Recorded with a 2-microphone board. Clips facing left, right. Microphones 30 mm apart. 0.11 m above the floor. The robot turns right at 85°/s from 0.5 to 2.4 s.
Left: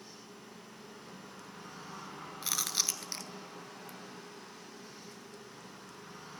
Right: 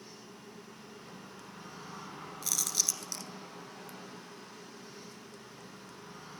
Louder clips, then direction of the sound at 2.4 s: Even; 30° left (ahead or behind).